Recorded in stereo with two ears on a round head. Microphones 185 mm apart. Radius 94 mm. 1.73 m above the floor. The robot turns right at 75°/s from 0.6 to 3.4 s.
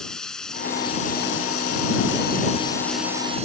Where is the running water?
5° left; by 3.5 s 145° right.